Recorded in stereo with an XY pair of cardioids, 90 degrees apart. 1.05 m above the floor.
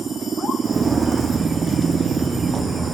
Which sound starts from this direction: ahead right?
Footsteps, at 0.6 s.